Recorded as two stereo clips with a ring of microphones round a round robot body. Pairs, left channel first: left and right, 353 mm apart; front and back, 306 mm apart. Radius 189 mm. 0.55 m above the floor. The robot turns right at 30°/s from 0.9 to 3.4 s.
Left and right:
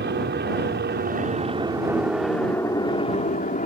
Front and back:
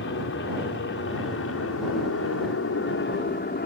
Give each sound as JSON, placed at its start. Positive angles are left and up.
{"t": 0.0, "sound": "an aircraft", "azimuth_deg": -40}